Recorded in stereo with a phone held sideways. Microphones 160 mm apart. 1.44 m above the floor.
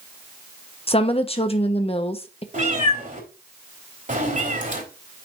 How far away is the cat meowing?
About 2.5 m.